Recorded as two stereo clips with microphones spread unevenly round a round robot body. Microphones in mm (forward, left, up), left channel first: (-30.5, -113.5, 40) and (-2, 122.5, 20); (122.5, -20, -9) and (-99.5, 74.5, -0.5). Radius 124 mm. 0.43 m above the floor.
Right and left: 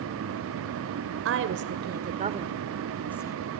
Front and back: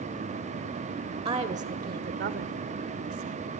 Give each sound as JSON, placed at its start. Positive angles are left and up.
{"t": 1.2, "sound": "a woman speaking", "azimuth_deg": 90, "distance_m": 1.5}